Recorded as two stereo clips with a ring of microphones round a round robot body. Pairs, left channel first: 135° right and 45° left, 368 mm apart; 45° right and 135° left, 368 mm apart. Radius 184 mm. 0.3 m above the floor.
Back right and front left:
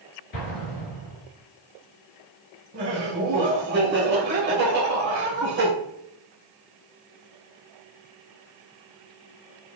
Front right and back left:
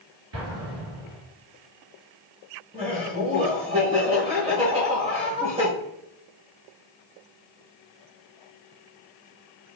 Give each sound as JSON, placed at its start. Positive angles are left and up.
{"t": 0.3, "sound": "an explosion", "azimuth_deg": -175, "distance_m": 2.0}
{"t": 2.7, "sound": "laughter", "azimuth_deg": 75, "distance_m": 1.3}